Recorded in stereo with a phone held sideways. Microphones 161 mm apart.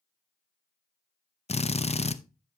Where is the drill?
40° left (ahead or behind), 0.6 m.